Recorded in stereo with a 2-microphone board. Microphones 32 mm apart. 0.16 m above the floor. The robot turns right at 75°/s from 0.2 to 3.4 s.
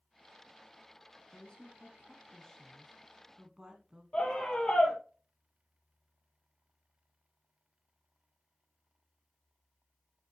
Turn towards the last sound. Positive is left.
turn(degrees=35)  # may be behind; listen again after turning